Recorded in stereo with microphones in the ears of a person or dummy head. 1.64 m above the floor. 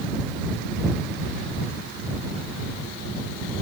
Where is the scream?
No scream in this recording.